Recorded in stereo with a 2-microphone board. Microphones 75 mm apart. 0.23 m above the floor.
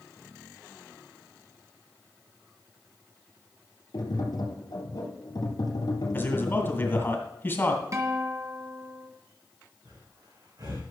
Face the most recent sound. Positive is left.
turn(degrees=-65)  # may be behind; listen again after turning